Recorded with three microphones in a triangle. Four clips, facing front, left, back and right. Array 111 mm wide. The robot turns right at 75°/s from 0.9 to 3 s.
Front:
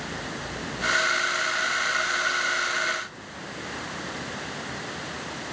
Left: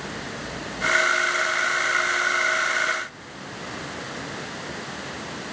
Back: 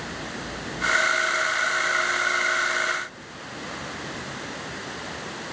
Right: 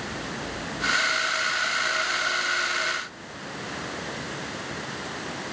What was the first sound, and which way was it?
Only background noise.